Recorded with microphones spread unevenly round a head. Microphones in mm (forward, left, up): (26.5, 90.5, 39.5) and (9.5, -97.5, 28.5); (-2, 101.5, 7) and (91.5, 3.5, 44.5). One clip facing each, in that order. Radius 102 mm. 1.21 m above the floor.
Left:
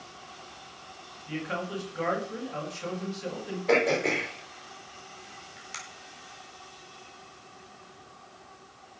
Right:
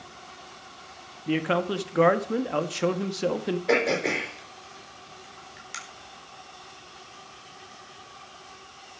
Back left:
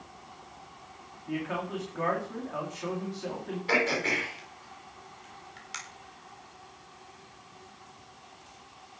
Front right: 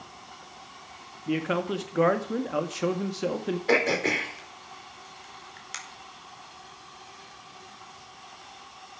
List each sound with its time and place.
1.3 s a man speaking: 75° right, 1.8 m
3.7 s throat clearing: 10° right, 4.5 m